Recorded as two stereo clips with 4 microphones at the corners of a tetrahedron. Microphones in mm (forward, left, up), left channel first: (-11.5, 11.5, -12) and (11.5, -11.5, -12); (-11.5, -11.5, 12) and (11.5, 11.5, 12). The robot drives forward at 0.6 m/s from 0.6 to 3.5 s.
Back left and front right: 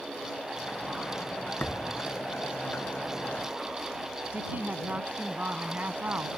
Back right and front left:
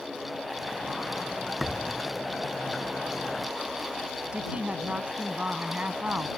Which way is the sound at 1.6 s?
140° left.